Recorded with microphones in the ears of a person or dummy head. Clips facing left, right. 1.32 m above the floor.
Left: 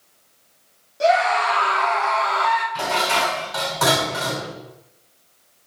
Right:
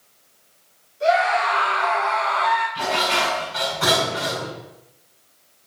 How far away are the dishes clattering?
About 4 m.